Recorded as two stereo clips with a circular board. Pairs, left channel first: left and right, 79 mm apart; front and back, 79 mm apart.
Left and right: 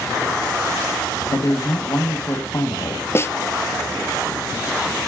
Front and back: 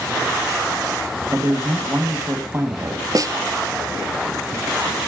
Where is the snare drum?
145° left, 0.8 m.